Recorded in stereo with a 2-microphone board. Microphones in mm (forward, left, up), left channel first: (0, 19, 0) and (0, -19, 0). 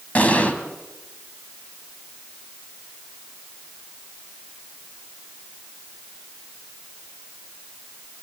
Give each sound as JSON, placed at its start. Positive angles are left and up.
{"t": 0.1, "sound": "an explosion", "side_deg": 40, "distance_m": 2.5}